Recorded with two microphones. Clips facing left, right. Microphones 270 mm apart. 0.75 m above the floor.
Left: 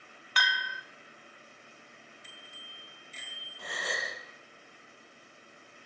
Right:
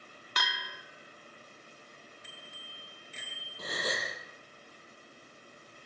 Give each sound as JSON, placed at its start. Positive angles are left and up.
{"t": 0.4, "sound": "a bell", "side_deg": -45, "distance_m": 1.5}
{"t": 2.2, "sound": "a bicycle bell", "side_deg": -65, "distance_m": 8.0}
{"t": 3.6, "sound": "a gasp", "side_deg": -45, "distance_m": 6.0}